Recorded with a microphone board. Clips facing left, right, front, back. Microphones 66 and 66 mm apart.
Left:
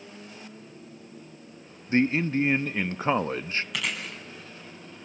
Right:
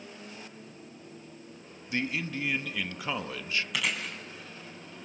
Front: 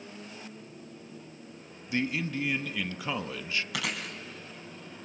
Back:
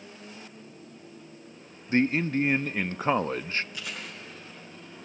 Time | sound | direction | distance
1.9 | a man speaking | 135° left | 0.8 m
3.7 | chewing | straight ahead | 4.5 m